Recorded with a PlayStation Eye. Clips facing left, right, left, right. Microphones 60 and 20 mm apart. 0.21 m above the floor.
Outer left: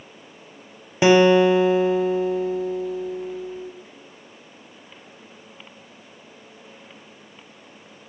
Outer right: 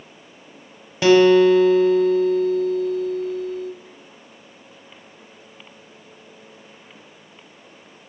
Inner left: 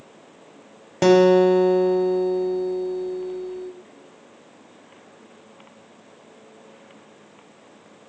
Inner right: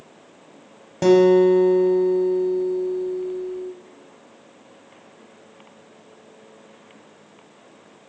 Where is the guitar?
20° left (ahead or behind), 0.8 m.